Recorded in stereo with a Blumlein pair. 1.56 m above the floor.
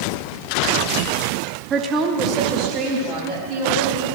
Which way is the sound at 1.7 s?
25° right.